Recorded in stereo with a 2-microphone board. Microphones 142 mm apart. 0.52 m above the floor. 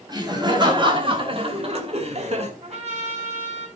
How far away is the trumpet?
About 3 m.